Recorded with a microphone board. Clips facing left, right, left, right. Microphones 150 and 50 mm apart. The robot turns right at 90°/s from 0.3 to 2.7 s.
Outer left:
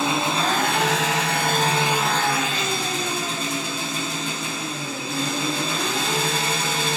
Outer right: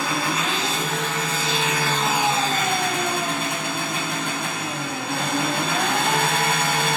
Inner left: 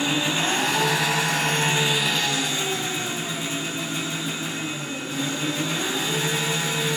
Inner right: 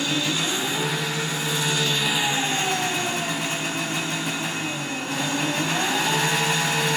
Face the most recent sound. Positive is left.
turn(degrees=-125)